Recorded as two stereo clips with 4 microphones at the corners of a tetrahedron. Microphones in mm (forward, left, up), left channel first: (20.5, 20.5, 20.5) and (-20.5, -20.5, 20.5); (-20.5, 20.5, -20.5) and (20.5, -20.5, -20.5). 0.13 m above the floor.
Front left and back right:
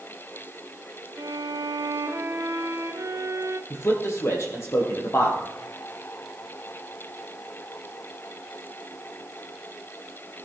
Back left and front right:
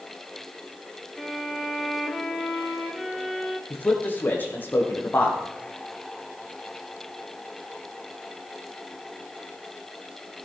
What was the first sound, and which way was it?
A violin, 135° right.